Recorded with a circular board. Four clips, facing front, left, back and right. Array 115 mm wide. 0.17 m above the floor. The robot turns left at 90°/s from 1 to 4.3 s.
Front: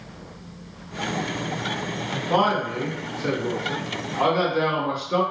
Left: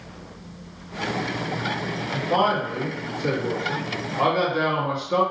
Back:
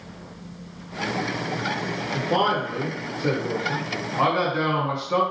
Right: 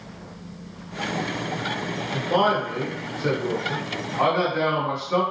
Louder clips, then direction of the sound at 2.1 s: Even, front 1 dB; 35° left.